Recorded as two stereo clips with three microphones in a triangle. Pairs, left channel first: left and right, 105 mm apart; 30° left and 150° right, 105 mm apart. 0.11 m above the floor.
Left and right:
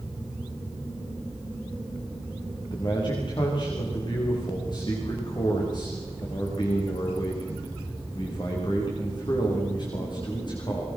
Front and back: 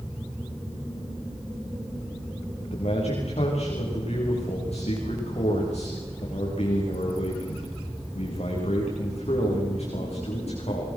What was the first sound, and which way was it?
A man speaking, 45° left.